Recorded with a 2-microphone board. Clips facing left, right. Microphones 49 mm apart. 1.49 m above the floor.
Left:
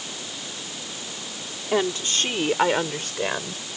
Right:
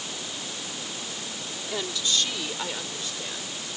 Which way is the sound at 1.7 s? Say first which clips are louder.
Left 6 dB; 35° left (ahead or behind).